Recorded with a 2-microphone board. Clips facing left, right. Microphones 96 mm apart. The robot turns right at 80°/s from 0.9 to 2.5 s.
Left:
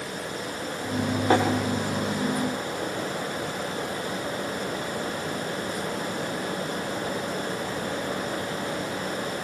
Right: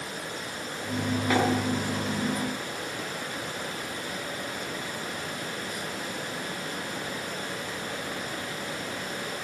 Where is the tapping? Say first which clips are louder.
Left 4 dB; 35° left (ahead or behind), 9.5 m; by 1.4 s 25° left (ahead or behind), 9.5 m.